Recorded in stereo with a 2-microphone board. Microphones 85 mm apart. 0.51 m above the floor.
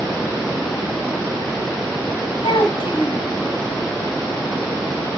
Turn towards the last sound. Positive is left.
turn(degrees=70)  # may be behind; listen again after turning